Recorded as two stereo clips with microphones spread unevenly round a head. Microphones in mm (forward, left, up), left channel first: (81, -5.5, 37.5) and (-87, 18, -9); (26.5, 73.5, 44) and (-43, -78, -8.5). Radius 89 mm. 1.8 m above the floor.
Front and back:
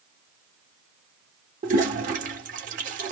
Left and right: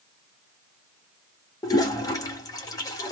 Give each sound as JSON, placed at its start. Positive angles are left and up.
{"t": 1.6, "sound": "a toilet flushing", "azimuth_deg": 120, "distance_m": 0.8}